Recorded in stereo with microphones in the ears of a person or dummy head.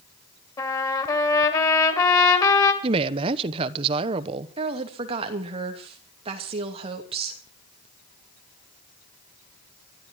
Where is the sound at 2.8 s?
30° right (ahead or behind), 1.0 m.